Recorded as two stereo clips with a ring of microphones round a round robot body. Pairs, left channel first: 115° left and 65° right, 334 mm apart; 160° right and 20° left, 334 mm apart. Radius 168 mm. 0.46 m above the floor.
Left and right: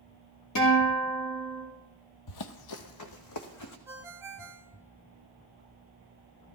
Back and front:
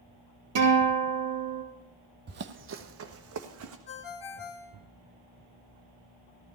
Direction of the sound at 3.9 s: 150° right.